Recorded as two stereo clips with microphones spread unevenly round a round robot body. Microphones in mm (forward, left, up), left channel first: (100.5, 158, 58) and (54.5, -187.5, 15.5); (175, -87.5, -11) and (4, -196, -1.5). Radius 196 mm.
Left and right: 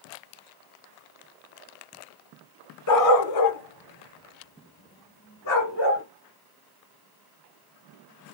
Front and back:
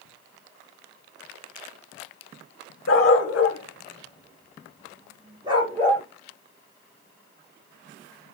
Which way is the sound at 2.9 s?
45° left.